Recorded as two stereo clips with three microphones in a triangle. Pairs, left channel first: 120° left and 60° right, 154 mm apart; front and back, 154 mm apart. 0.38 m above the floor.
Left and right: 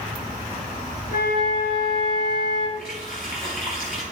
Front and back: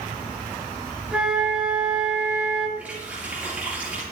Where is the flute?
95° left, 3 m.